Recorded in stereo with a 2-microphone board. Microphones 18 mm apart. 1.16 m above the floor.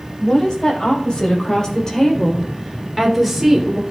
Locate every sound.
0.2 s a woman speaking: 55° left (ahead or behind), 5.5 m; by 3.8 s 15° right (ahead or behind), 3.5 m